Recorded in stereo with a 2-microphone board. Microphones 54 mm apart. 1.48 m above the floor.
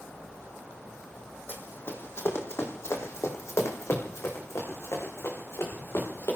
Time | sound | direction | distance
1.5 | running footsteps | 45° left (ahead or behind) | 2.5 m